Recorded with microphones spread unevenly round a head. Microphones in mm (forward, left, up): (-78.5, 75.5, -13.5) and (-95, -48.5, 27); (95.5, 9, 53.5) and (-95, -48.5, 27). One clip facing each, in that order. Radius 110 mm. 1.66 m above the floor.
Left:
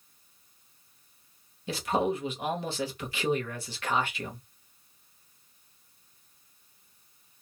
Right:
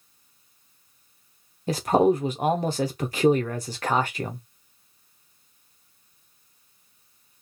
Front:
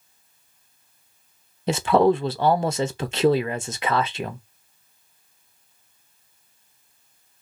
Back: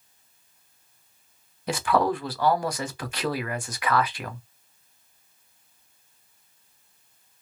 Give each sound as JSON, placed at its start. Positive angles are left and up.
{"t": 1.7, "sound": "a man speaking", "azimuth_deg": -45, "distance_m": 0.5}